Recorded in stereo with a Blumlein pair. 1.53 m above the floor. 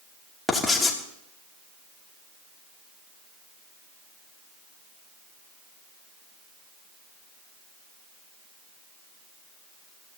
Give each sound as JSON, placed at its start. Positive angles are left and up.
{"t": 0.5, "sound": "writing", "azimuth_deg": 5, "distance_m": 2.5}